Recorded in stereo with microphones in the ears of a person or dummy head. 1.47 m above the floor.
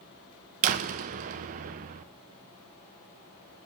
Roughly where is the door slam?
Right.